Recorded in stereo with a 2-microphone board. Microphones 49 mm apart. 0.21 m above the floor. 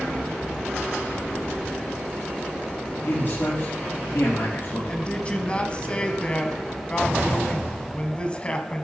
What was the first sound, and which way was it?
A man speaking, 55° left (ahead or behind).